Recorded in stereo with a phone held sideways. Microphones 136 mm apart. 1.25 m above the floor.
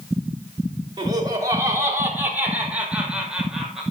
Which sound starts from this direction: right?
Laughter, at 1.0 s.